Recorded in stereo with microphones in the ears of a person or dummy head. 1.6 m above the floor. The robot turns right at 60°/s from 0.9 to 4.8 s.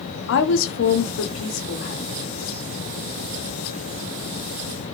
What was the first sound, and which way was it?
A woman speaking, 75° left.